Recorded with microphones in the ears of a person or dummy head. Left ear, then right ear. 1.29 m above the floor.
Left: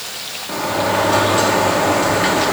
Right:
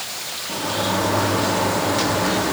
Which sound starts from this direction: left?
A sliding door, at 0.5 s.